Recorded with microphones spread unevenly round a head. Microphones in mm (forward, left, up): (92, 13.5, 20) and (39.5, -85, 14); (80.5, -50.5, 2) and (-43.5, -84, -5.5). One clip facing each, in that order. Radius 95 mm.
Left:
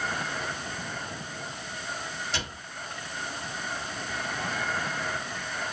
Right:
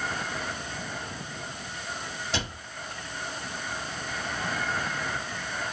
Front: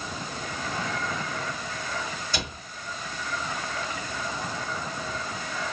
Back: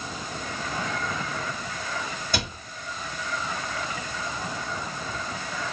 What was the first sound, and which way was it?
A cupboard door, 140° right.